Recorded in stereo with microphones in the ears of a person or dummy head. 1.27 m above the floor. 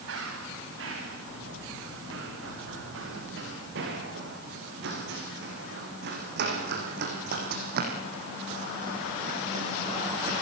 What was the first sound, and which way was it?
Running footsteps, 70° right (ahead or behind).